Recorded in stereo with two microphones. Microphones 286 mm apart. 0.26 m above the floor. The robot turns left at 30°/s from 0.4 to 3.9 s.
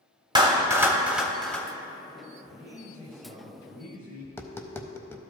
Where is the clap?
15° right (ahead or behind), 0.8 m; by 1.7 s 5° left (ahead or behind), 0.8 m.